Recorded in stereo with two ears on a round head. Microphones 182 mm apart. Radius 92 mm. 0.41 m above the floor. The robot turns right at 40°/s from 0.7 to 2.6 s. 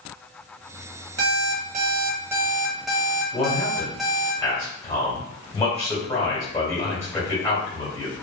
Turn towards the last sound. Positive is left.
turn(degrees=15)  # may be behind; listen again after turning